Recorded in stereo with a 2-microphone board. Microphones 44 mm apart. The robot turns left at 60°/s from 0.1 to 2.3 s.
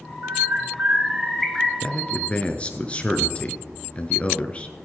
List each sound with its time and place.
0.2 s a bird: 105° right, 4 m; by 1.7 s 165° left, 4 m
1.8 s a man speaking: 20° left (ahead or behind), 1.4 m; by 4.8 s 25° left (ahead or behind), 1.4 m